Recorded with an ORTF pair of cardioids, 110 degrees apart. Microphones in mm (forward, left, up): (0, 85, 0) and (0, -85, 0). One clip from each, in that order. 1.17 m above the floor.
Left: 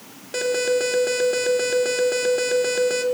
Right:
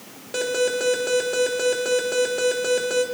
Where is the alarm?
15° left, 3 m.